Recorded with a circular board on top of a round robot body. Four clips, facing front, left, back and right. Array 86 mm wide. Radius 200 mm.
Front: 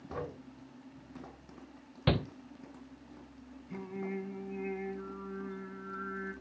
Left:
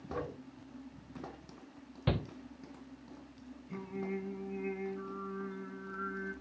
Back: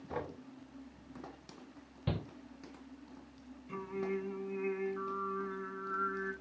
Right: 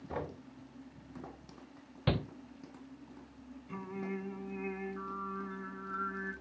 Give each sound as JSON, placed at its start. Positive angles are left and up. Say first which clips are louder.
{"t": 0.1, "sound": "knocking", "louder": "even, even", "azimuth_deg": -120, "distance_m": 5.0}
{"t": 2.1, "sound": "a shout", "louder": "right 1 dB, front 8 dB", "azimuth_deg": -20, "distance_m": 0.6}
{"t": 3.7, "sound": "singing", "louder": "left 1 dB, back 2 dB", "azimuth_deg": -140, "distance_m": 5.5}